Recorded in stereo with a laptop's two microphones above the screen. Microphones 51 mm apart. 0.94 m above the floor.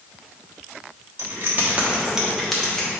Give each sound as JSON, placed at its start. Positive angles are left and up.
{"t": 1.2, "sound": "keys jangling", "side_deg": -55, "distance_m": 1.2}